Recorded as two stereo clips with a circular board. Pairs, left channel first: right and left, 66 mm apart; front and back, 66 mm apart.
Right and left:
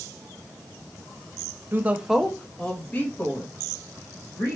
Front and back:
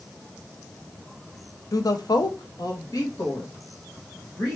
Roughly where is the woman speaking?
Ahead left.